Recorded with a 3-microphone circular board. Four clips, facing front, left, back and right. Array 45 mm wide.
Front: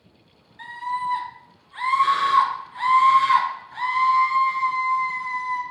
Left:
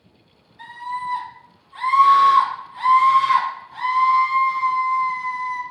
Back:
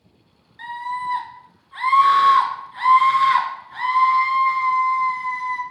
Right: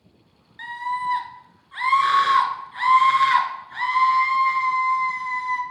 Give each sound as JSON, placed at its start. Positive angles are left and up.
{"t": 0.6, "sound": "a scream", "azimuth_deg": -100, "distance_m": 2.5}